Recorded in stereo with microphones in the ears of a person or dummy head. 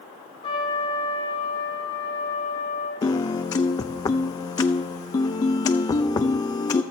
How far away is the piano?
About 0.5 m.